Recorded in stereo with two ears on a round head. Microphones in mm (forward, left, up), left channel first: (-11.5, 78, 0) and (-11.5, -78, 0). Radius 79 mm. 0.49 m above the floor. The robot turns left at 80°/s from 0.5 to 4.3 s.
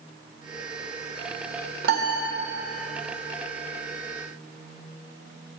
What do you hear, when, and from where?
1.8 s a piano: 80° right, 1.0 m; by 2.3 s 115° right, 1.0 m